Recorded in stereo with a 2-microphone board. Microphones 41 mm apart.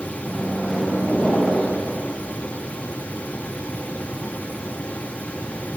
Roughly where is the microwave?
Centre.